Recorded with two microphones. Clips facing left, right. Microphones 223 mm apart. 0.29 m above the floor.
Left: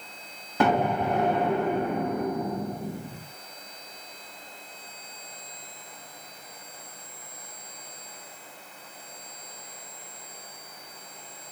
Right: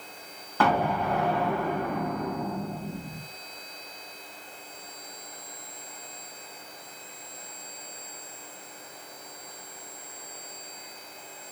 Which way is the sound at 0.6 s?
20° left (ahead or behind).